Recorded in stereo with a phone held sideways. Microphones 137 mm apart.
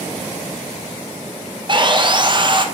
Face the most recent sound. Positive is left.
turn(degrees=-35)  # may be behind; listen again after turning